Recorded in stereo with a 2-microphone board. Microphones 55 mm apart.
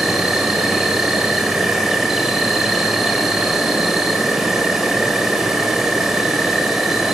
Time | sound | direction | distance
0.0 | an insect | 5° right (ahead or behind) | 1.7 m